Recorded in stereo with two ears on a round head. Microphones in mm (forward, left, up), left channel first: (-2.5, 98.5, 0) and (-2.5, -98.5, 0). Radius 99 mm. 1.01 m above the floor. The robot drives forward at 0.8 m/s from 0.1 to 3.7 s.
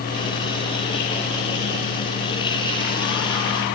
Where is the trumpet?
No trumpet in this recording.